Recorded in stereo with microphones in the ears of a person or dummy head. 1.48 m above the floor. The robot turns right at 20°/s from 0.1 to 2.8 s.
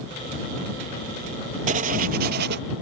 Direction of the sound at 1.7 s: 40° right (ahead or behind).